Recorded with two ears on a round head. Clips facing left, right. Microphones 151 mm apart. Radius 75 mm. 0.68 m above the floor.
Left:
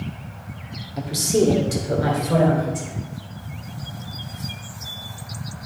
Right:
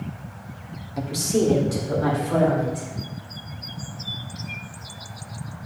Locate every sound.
1.0 s a woman speaking: 5° right (ahead or behind), 1.1 m; by 2.9 s 45° left (ahead or behind), 3 m